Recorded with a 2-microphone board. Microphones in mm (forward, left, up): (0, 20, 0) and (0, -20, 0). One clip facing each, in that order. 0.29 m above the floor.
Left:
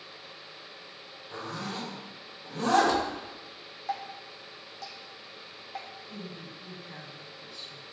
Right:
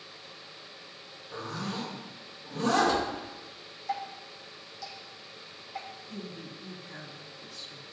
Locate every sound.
1.3 s a zipper: 50° left (ahead or behind), 2 m
3.9 s dripping: 45° left (ahead or behind), 2.0 m
6.1 s a woman speaking: 15° left (ahead or behind), 1.9 m